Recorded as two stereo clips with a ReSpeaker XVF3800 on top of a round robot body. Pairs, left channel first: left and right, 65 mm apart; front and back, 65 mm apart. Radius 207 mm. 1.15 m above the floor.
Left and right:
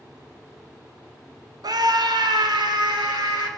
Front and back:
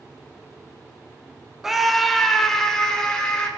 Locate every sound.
1.6 s a scream: 95° right, 1.2 m; by 3.5 s 80° right, 3.5 m